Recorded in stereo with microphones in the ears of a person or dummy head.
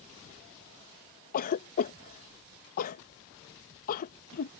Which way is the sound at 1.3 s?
45° left (ahead or behind).